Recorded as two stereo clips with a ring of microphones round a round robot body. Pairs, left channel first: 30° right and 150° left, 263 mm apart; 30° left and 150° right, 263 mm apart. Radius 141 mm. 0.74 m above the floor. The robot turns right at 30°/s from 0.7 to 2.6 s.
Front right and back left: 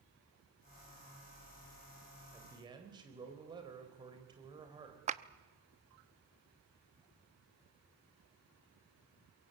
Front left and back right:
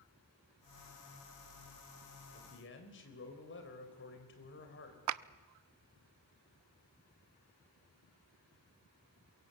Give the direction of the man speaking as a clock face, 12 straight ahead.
10 o'clock.